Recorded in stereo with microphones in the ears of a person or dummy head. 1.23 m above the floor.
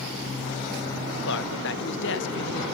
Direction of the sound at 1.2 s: 65° left (ahead or behind).